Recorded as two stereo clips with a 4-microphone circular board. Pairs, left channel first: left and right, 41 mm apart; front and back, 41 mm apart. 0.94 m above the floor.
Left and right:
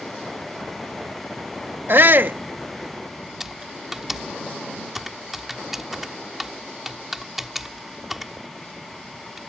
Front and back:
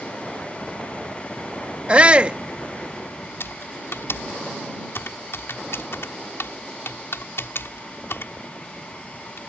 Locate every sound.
1.9 s a shout: 120° right
3.4 s typing on a keyboard: 5° right